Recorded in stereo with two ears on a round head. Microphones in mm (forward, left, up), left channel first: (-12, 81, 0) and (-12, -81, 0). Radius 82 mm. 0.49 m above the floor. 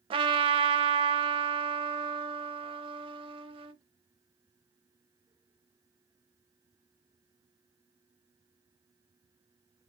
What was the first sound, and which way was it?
A trumpet, 30° right (ahead or behind).